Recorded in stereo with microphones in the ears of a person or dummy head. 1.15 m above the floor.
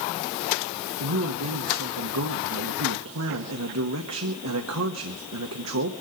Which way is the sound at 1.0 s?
80° right.